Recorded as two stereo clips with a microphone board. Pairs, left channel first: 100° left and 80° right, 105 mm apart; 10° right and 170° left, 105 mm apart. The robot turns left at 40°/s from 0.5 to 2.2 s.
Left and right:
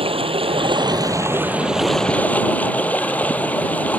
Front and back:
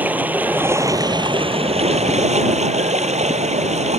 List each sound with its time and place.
0.0 s running water: 115° right; by 4.0 s 175° left